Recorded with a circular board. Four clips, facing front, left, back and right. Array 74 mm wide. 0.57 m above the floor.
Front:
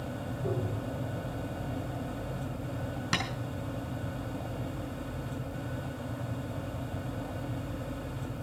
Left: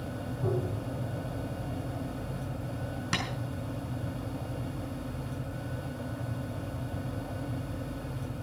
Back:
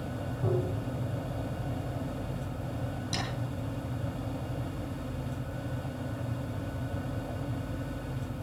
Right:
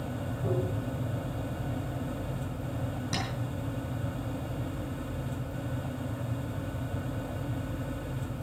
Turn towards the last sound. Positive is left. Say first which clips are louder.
# left 2 dB, front 5 dB
turn(degrees=35)